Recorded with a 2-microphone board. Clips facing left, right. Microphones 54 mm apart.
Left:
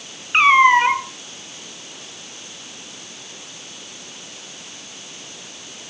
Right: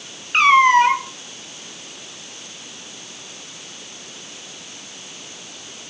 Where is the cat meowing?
10° left (ahead or behind), 1.2 m.